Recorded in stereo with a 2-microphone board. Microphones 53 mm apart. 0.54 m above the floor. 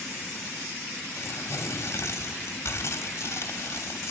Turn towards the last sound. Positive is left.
turn(degrees=60)  # may be behind; listen again after turning